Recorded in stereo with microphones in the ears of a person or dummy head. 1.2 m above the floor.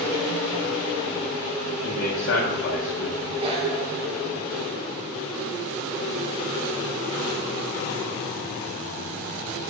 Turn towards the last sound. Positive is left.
turn(degrees=-30)  # may be behind; listen again after turning